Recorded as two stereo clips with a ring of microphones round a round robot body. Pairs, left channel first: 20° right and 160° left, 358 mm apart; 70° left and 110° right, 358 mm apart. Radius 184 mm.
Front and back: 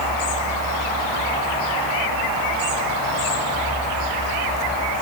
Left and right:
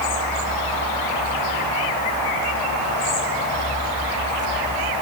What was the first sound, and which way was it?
Only background noise.